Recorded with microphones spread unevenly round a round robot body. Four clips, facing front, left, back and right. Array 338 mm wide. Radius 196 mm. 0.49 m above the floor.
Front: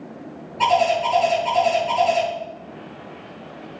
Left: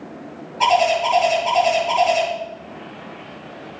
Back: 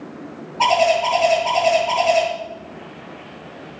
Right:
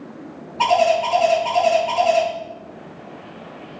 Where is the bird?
55° right, 7 m.